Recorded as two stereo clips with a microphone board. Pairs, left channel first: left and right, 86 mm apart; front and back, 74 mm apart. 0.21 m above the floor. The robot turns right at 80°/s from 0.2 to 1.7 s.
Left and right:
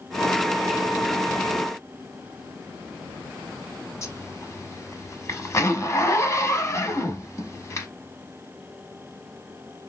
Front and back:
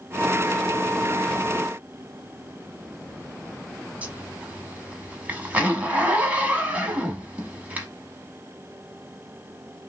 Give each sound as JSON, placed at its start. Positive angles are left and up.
{"t": 4.0, "sound": "a zipper", "azimuth_deg": 120, "distance_m": 0.9}